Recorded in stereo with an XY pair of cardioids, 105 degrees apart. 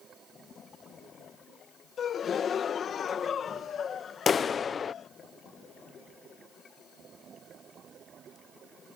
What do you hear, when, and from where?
2.0 s a gasp: 50° left
4.3 s a clap: 45° left